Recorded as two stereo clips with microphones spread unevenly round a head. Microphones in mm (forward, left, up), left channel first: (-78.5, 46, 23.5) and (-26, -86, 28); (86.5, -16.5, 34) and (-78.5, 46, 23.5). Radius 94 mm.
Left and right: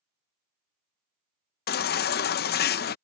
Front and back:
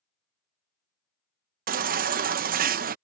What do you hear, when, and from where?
1.7 s a baby crying: 115° left